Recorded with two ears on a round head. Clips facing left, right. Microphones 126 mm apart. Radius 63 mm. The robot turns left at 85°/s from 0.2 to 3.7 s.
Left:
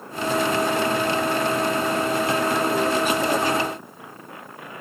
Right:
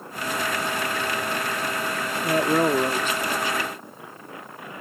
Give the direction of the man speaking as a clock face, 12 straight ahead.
4 o'clock.